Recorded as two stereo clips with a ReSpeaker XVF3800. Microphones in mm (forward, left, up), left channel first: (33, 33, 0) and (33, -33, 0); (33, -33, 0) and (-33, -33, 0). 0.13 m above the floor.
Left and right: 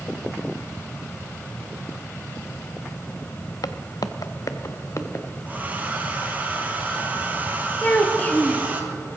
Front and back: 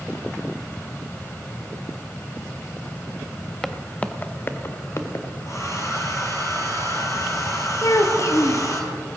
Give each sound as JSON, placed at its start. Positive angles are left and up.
{"t": 3.6, "sound": "footsteps", "azimuth_deg": 85, "distance_m": 0.8}
{"t": 5.5, "sound": "a hair dryer", "azimuth_deg": -30, "distance_m": 2.0}
{"t": 7.8, "sound": "a child speaking", "azimuth_deg": 25, "distance_m": 1.5}